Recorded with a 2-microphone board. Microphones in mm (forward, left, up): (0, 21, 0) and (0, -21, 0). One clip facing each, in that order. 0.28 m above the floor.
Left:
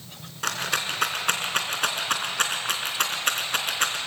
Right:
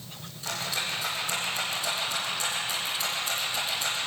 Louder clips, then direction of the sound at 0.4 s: Left 5 dB; 70° left (ahead or behind).